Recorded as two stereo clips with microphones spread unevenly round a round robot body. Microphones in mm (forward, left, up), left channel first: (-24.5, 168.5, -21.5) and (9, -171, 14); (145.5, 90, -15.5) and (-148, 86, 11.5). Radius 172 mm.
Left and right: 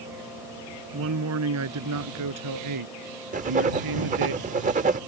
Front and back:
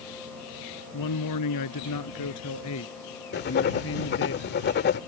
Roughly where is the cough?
I don't hear a cough.